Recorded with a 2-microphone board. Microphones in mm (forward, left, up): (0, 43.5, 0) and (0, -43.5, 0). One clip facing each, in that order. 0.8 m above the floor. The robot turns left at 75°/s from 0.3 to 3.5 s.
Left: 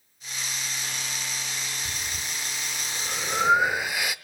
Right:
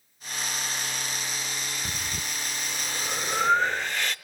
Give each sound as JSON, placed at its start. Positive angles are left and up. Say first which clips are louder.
{"t": 1.9, "sound": "breathing", "louder": "right 1 dB", "side_deg": -55, "distance_m": 0.6}